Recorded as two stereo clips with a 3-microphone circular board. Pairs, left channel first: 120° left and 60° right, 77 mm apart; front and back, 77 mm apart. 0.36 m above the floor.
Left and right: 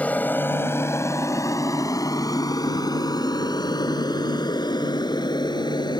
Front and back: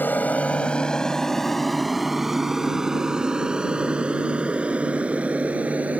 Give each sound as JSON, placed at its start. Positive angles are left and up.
{"t": 0.0, "sound": "an aircraft", "azimuth_deg": 55}